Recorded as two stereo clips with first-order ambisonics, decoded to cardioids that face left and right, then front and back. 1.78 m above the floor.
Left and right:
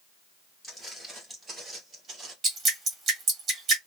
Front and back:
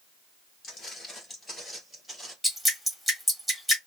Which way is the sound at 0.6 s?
10° left.